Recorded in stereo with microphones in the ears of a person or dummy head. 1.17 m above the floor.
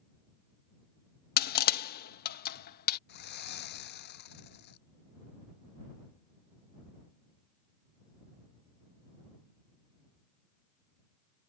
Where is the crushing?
50° left (ahead or behind).